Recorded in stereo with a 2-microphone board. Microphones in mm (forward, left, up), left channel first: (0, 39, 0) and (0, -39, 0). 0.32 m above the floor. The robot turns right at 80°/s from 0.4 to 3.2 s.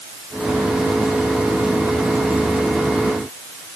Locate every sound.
Only background noise.